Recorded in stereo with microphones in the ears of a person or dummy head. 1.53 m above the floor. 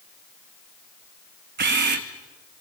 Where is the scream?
I don't hear a scream.